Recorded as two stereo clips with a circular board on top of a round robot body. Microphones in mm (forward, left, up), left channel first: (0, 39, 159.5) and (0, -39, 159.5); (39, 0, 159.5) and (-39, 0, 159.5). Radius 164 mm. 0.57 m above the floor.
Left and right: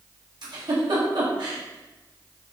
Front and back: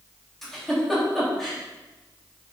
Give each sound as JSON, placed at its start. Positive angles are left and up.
{"t": 0.4, "sound": "a giggle", "azimuth_deg": -90, "distance_m": 3.5}